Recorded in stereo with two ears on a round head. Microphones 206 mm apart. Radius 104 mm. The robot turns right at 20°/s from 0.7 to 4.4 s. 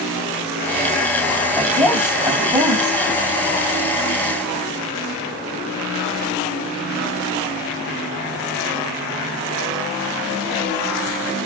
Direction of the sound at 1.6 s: 5° left (ahead or behind).